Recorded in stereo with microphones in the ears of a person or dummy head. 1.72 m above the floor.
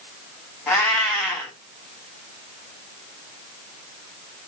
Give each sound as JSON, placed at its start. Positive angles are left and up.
{"t": 0.7, "sound": "a cat meowing", "side_deg": 15, "distance_m": 1.4}